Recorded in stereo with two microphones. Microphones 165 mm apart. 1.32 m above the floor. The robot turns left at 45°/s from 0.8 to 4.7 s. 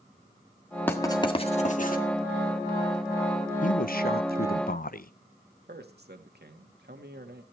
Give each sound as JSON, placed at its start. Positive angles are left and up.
{"t": 0.9, "sound": "writing", "side_deg": 15, "distance_m": 1.7}
{"t": 3.6, "sound": "a man speaking", "azimuth_deg": 120, "distance_m": 0.6}
{"t": 5.7, "sound": "a man speaking", "side_deg": -90, "distance_m": 2.0}